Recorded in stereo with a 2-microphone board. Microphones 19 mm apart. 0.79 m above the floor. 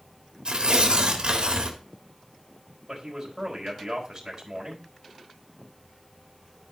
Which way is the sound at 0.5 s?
50° right (ahead or behind).